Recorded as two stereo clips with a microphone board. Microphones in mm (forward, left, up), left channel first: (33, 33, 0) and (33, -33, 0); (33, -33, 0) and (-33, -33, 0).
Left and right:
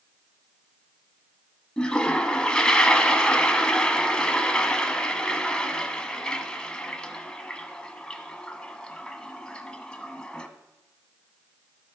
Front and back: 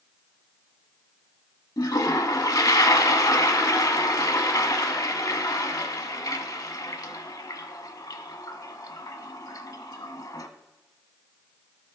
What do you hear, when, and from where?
1.8 s a toilet flushing: 15° left, 0.7 m